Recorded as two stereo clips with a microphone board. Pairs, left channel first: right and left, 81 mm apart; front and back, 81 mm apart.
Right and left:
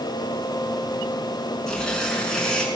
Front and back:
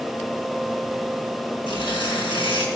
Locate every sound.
1.7 s tearing paper: 5° right, 5 m